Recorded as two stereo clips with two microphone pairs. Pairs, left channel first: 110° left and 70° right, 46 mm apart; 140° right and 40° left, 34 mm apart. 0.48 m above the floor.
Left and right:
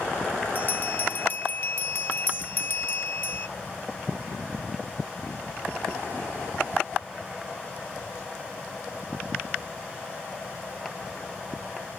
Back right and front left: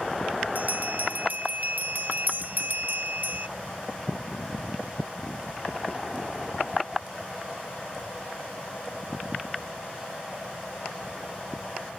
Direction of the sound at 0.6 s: 75° left.